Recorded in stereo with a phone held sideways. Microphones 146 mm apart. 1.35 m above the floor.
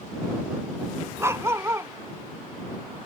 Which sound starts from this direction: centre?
A dog barking, at 1.2 s.